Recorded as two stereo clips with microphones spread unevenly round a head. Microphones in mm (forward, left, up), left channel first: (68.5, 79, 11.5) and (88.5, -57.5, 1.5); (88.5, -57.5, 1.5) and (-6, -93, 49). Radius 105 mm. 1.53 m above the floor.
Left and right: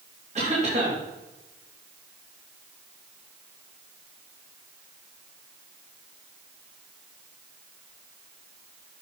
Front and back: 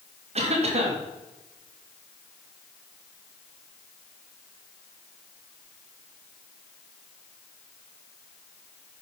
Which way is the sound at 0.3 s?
145° right.